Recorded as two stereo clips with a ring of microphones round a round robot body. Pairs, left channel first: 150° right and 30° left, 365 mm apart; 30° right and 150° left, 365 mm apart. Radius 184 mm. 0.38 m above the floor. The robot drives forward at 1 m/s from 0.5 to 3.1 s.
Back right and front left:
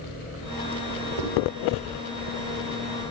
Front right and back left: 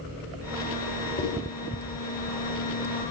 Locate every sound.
1.2 s writing: 40° left, 6.5 m; by 1.3 s 45° left, 6.5 m